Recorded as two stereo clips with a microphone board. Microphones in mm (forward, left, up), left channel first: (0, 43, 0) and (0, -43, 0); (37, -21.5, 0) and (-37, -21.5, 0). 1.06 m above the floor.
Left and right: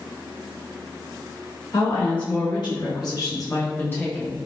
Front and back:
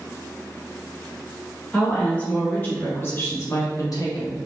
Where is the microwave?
I don't hear a microwave.